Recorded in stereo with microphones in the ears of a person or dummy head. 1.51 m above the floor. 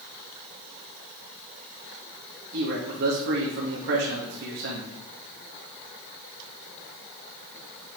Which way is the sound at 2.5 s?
65° right (ahead or behind).